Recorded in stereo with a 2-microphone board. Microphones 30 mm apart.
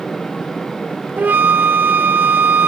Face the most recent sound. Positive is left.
turn(degrees=-70)  # may be behind; listen again after turning